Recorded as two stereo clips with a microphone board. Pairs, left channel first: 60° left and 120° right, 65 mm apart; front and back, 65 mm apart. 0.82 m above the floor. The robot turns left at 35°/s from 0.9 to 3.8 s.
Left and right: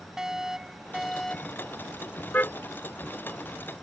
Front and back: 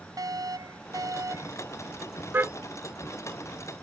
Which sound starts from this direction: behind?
A fire alarm, at 0.2 s.